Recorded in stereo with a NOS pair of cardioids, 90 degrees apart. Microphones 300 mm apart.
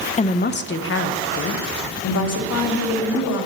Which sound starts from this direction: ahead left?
A woman speaking, at 0.2 s.